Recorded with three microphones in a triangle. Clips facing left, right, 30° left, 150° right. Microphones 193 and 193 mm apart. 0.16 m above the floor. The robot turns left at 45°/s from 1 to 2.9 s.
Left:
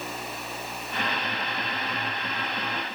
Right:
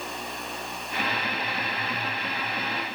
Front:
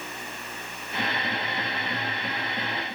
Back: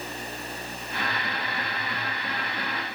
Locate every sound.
Only background noise.